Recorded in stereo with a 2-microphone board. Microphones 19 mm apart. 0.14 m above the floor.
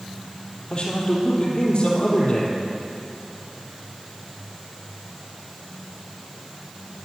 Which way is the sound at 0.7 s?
40° left (ahead or behind).